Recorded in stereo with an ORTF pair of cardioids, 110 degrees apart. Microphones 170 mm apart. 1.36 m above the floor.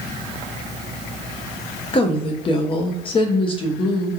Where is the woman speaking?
30° left, 0.6 m.